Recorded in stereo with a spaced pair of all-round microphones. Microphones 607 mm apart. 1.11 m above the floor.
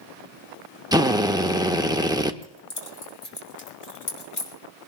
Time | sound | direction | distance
0.9 | a drill | 5° right (ahead or behind) | 0.8 m
2.4 | keys jangling | 75° left (ahead or behind) | 3 m